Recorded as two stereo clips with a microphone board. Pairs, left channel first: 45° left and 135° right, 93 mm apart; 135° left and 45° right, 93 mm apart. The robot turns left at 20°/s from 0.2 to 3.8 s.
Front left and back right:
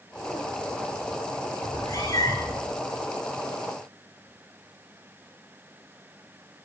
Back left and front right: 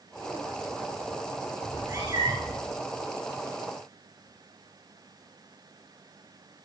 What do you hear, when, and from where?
1.6 s a cat meowing: 15° left, 3 m; by 2.6 s 5° right, 3 m